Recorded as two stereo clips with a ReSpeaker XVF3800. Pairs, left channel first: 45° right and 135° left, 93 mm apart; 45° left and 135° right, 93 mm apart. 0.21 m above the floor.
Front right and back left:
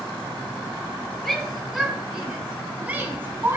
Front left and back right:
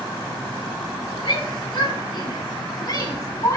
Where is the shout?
40° left, 2.5 m; by 3.6 s 80° left, 2 m.